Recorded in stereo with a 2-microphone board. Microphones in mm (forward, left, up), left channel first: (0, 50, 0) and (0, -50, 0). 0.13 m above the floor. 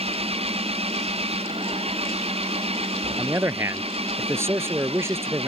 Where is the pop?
I don't hear a pop.